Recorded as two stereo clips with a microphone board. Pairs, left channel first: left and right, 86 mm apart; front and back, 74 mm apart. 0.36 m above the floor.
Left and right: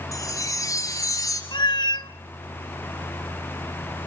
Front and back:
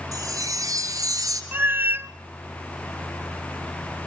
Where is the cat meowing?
120° left, 0.7 m.